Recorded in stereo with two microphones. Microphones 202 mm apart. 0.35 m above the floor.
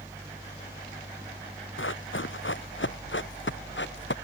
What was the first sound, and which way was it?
Running footsteps, 75° left (ahead or behind).